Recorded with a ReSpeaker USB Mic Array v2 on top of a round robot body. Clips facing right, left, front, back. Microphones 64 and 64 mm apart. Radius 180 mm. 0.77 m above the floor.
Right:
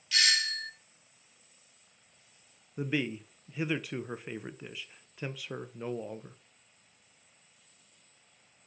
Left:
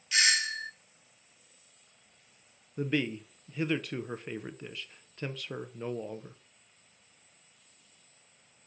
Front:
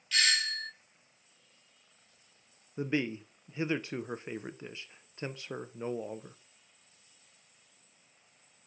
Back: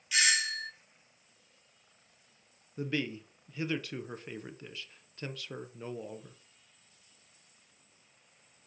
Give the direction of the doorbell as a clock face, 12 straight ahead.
8 o'clock.